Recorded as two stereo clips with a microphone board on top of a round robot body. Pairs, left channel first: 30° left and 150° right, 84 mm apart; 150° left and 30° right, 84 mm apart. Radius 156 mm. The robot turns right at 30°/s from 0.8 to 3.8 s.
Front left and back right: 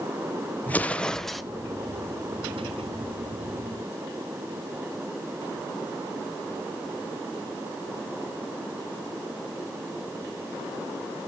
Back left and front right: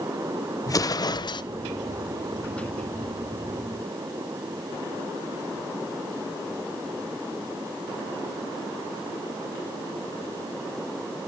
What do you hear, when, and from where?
0.7 s an explosion: 105° left, 0.9 m; by 1.4 s 120° left, 0.9 m